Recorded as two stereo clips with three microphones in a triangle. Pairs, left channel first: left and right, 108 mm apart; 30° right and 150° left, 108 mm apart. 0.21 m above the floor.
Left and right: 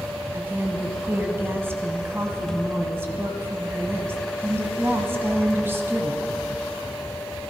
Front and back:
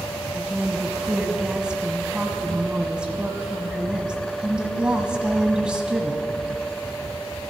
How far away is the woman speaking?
About 1.1 m.